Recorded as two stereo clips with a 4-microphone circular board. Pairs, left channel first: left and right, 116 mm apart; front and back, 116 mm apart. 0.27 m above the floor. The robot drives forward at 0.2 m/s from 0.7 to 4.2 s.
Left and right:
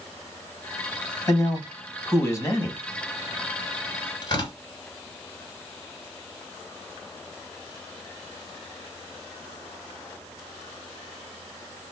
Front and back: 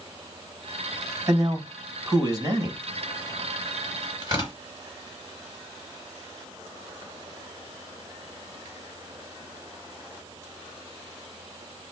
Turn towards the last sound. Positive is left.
turn(degrees=135)